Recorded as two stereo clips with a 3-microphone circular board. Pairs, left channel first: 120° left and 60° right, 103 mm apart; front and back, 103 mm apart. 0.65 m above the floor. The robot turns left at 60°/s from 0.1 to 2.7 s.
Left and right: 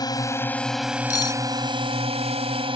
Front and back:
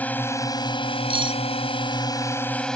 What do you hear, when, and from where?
0.0 s a drone: 75° left; by 2.8 s 85° right
1.1 s cutlery clinking: 170° left; by 1.4 s 150° left